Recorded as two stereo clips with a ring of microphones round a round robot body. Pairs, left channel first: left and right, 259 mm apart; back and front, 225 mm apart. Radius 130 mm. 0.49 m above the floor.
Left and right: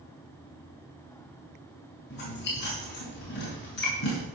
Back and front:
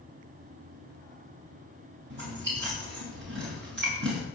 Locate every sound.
2.1 s chewing: 40° left, 6 m